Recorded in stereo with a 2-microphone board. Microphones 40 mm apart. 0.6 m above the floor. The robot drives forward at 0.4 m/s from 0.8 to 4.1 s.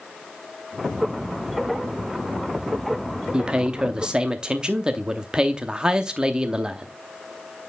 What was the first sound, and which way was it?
A man speaking, 20° right (ahead or behind).